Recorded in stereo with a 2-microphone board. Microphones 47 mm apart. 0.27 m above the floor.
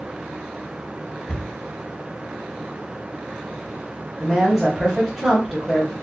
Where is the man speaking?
5° right (ahead or behind), 1.3 m.